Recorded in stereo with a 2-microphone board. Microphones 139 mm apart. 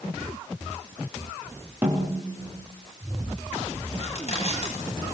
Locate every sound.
1.8 s a snare drum: 15° right (ahead or behind), 5 m
4.0 s crushing: 55° left (ahead or behind), 9.5 m